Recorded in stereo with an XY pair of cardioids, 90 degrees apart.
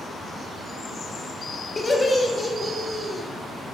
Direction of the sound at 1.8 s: 20° left.